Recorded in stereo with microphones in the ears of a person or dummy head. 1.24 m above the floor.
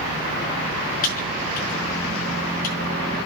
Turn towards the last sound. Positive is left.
turn(degrees=50)  # may be behind; listen again after turning